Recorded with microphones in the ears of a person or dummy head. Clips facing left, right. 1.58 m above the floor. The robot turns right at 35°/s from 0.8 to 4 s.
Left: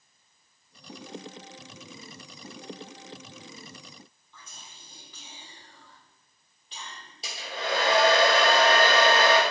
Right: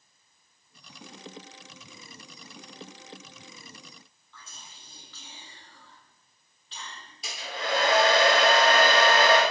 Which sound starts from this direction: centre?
Whispering, at 4.3 s.